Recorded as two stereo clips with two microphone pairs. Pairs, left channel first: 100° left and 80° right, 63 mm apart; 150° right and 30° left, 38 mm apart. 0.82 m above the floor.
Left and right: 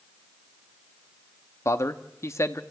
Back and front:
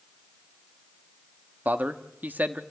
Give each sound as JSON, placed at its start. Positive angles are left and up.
{"t": 1.6, "sound": "a man speaking", "azimuth_deg": 65, "distance_m": 1.2}